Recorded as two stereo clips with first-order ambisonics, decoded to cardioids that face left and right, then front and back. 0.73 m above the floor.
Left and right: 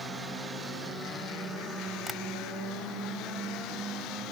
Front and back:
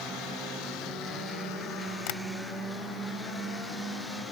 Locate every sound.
2.1 s tapping: straight ahead